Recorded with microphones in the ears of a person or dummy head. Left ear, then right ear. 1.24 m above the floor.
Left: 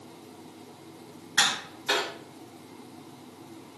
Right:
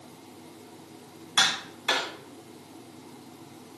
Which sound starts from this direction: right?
Tapping, at 1.4 s.